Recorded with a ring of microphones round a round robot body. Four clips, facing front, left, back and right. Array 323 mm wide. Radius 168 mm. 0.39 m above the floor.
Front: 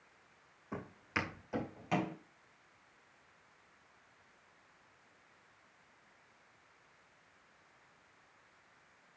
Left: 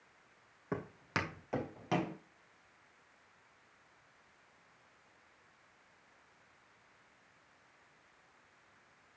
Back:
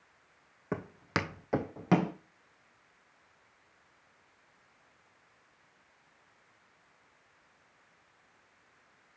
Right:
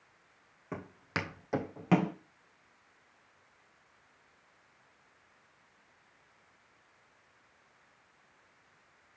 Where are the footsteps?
170° left, 1.3 m; by 2.1 s 140° right, 0.9 m.